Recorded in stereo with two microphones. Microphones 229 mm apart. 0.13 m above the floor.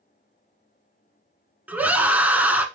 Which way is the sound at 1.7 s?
5° right (ahead or behind).